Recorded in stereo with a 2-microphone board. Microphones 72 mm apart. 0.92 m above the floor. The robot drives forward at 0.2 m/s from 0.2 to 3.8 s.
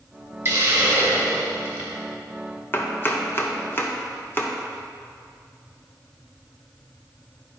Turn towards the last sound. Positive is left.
turn(degrees=30)  # may be behind; listen again after turning